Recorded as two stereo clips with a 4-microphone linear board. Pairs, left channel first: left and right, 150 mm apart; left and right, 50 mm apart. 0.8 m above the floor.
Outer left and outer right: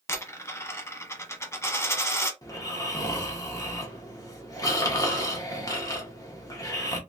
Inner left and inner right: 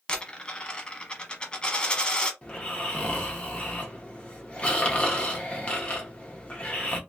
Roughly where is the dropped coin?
Centre.